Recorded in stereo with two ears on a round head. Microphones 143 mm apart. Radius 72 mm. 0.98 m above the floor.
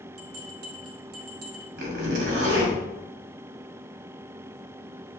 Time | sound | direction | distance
0.2 | a bell | 65° right (ahead or behind) | 1.2 m
1.8 | a zipper | 75° right (ahead or behind) | 2 m